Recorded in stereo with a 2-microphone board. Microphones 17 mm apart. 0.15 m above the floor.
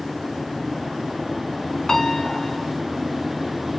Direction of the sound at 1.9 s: 30° left (ahead or behind).